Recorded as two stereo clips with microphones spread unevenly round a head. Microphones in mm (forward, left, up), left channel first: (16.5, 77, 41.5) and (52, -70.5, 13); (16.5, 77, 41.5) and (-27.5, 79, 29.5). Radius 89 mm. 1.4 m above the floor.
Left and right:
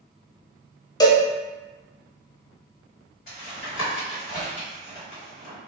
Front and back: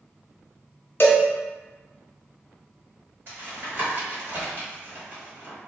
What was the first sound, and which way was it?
A cowbell, 35° left.